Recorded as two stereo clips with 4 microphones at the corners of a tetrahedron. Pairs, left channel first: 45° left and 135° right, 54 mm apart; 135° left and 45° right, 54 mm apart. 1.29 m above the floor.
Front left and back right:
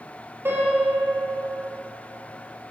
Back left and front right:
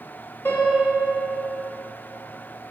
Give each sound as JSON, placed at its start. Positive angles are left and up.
{"t": 0.5, "sound": "a piano", "azimuth_deg": 180, "distance_m": 1.7}